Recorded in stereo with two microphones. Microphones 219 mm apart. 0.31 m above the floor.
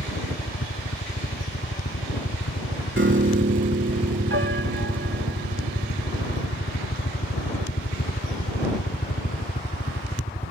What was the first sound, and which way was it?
A helicopter, 65° left (ahead or behind).